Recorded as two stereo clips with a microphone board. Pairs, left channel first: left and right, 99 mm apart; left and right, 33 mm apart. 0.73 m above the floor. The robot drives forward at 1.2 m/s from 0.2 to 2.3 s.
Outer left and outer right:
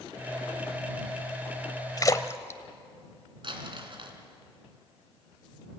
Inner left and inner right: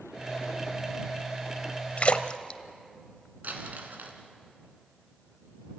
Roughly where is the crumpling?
Right.